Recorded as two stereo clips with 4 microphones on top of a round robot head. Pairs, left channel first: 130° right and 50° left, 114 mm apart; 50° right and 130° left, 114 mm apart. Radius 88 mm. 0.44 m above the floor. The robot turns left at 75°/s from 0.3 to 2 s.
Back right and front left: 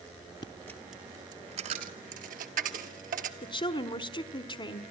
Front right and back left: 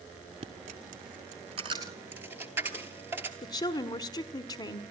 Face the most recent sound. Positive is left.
turn(degrees=-100)